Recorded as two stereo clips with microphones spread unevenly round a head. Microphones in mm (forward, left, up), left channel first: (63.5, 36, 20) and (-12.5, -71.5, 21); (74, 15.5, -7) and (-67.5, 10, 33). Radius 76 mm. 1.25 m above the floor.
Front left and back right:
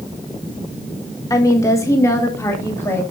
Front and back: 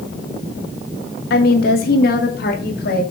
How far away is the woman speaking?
About 1.8 m.